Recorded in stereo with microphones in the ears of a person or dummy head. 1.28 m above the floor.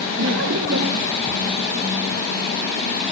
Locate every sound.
0.2 s laughter: 65° right (ahead or behind), 0.6 m